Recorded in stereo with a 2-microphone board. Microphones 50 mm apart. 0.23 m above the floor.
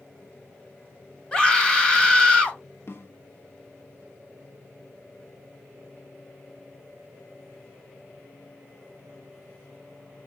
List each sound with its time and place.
1.3 s a scream: 15° left (ahead or behind), 1.0 m
2.9 s a snare drum: 50° left (ahead or behind), 0.8 m